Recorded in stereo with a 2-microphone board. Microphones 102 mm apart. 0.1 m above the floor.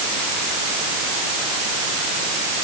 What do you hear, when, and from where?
Only background noise.